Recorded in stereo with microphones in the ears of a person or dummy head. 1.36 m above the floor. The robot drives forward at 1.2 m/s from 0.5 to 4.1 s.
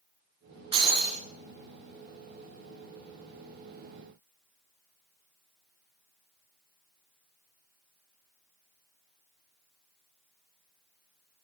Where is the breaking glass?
25° right (ahead or behind), 3.5 m.